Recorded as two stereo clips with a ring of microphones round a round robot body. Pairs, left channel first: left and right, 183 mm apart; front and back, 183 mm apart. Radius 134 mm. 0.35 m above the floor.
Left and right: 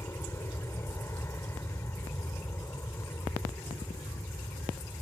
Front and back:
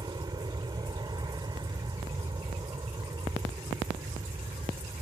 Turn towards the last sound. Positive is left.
turn(degrees=150)